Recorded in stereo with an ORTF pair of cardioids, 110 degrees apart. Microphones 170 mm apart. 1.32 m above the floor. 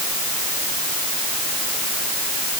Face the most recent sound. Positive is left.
No sound to turn to.